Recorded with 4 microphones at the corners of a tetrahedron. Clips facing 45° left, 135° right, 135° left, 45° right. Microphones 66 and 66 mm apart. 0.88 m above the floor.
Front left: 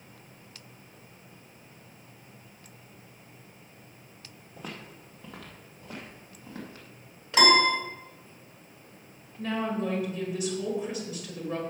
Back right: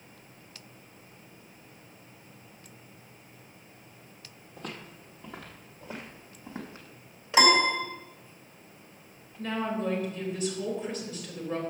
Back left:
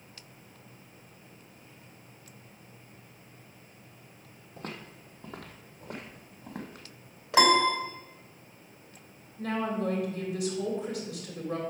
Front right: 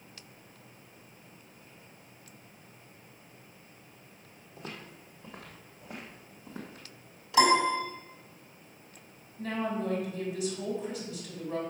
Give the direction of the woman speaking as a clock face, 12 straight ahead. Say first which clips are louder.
Front left 1 dB, back left 2 dB; 8 o'clock.